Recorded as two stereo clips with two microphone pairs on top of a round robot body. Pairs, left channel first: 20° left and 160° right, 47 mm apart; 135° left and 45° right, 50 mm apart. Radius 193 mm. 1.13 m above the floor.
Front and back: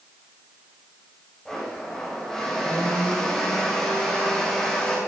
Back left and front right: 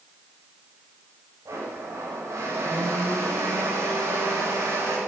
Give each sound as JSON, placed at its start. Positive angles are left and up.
{"t": 1.4, "sound": "a blender", "azimuth_deg": -60, "distance_m": 8.5}